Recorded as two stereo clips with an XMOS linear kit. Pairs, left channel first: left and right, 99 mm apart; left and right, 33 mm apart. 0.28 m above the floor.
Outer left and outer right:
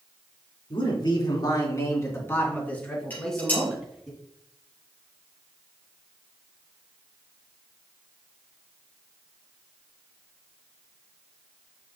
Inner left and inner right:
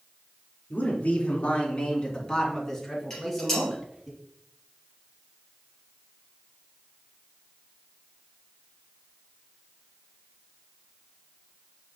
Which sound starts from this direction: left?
A man speaking, at 0.7 s.